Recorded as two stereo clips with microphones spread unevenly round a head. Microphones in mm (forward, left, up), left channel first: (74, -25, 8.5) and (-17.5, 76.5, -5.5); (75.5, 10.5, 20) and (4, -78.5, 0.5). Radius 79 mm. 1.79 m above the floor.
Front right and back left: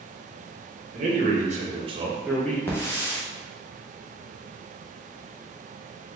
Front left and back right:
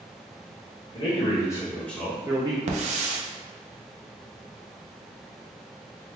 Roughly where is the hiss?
Behind right.